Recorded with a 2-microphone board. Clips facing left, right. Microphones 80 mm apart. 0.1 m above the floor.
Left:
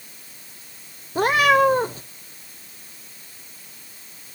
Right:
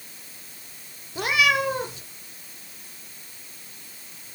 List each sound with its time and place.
1.1 s a cat meowing: 40° left (ahead or behind), 1.0 m